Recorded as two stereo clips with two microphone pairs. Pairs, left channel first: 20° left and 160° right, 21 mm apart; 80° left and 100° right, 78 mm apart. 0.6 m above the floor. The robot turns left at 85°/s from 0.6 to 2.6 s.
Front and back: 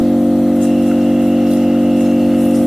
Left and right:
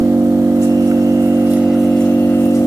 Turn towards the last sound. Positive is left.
turn(degrees=105)